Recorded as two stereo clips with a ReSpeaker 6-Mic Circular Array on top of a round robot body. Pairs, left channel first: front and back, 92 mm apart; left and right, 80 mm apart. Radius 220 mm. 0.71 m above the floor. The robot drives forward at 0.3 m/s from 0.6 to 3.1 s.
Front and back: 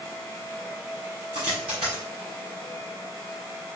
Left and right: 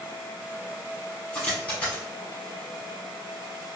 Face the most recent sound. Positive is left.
turn(degrees=165)